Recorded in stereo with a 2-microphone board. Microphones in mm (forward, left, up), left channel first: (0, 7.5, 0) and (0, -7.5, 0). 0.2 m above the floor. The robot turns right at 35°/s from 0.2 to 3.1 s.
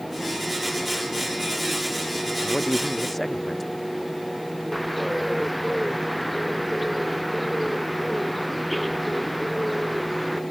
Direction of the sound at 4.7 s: Centre (ahead or behind).